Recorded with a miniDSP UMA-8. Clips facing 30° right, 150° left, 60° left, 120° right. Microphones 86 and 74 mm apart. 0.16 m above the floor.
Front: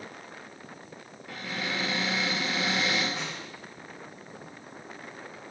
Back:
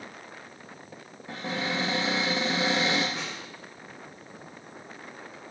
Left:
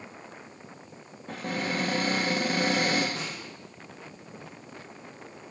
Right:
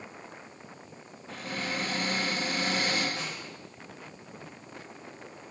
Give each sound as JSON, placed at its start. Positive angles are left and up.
{"t": 1.3, "sound": "a cupboard door", "azimuth_deg": 90, "distance_m": 1.7}
{"t": 3.1, "sound": "a snare drum", "azimuth_deg": 60, "distance_m": 3.0}